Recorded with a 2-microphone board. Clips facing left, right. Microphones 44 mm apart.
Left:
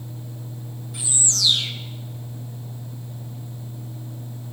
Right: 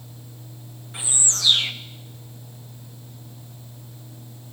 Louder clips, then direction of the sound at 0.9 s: Left 1 dB; 30° right (ahead or behind).